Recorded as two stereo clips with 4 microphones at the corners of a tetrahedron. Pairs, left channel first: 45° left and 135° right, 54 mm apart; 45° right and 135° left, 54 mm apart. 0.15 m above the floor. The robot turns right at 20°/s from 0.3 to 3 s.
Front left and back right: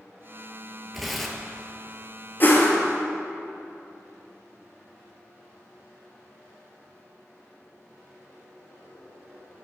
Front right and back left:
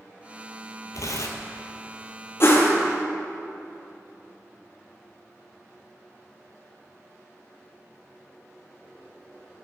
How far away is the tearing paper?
About 0.6 m.